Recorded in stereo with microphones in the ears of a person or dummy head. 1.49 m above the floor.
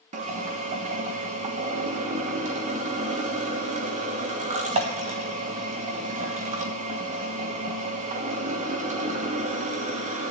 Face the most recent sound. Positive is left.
turn(degrees=-45)  # may be behind; listen again after turning